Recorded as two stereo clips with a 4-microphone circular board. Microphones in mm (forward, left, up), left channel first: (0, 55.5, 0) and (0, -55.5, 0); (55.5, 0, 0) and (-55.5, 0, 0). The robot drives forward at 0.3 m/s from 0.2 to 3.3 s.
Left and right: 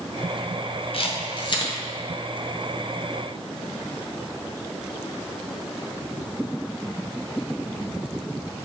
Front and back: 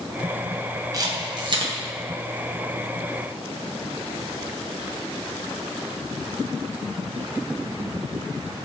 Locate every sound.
0.9 s a camera shutter: 125° left, 0.6 m; by 1.7 s 140° left, 0.8 m